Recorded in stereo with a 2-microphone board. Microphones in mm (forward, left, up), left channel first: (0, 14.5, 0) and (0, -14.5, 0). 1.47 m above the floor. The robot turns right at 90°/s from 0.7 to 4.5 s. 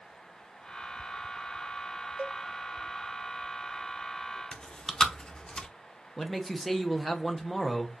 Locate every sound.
2.2 s a cowbell: 45° right (ahead or behind), 0.6 m; by 2.4 s 60° right (ahead or behind), 0.6 m
4.5 s chewing: 30° left (ahead or behind), 0.6 m
6.2 s a man speaking: 5° left (ahead or behind), 0.9 m